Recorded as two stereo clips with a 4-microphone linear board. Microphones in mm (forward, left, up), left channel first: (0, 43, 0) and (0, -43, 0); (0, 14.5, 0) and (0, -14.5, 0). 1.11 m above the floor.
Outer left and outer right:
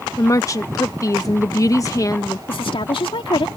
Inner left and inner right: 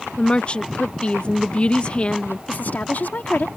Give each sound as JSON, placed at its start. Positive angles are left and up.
{"t": 0.2, "sound": "a woman speaking", "side_deg": 40}
{"t": 2.5, "sound": "a woman speaking", "side_deg": 80}